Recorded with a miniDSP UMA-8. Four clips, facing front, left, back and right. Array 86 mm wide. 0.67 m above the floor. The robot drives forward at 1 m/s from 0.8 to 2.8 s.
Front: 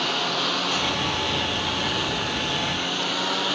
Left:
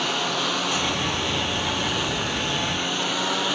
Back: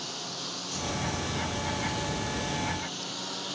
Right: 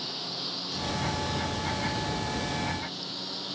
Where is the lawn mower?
50° left.